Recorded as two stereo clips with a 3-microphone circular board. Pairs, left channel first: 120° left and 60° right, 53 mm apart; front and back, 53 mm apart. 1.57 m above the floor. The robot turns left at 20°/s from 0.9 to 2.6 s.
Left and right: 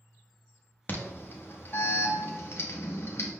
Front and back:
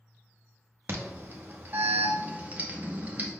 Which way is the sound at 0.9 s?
160° left.